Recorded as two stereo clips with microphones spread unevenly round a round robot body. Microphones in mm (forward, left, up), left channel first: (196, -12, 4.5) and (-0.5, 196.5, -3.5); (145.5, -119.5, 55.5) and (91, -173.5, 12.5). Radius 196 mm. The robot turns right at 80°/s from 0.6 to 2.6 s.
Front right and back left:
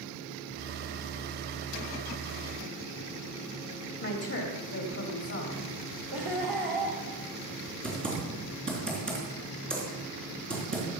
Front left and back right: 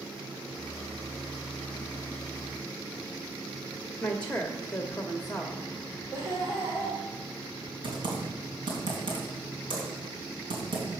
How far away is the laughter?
About 2.0 m.